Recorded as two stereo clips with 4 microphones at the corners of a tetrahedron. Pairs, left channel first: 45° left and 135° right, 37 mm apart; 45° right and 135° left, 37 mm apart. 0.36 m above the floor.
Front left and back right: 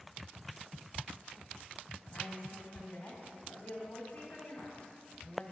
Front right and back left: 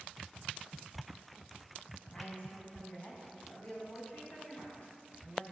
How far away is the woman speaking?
About 3 m.